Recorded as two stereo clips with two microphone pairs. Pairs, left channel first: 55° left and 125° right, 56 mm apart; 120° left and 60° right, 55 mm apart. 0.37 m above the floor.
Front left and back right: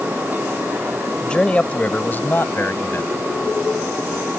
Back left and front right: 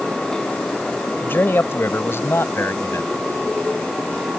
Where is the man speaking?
125° left; by 3.3 s 95° left.